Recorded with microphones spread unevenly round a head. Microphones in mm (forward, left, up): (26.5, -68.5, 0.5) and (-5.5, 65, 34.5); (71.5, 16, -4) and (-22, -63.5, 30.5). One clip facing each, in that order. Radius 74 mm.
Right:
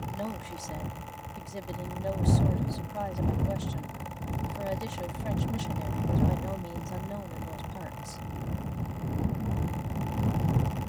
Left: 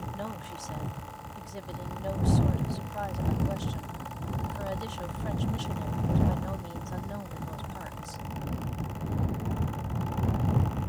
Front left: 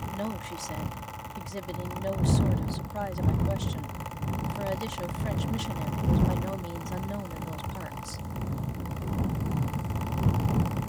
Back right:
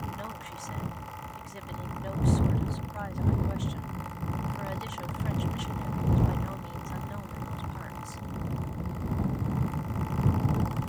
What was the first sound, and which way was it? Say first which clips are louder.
A woman speaking: right 2 dB, front left 6 dB; 5° right.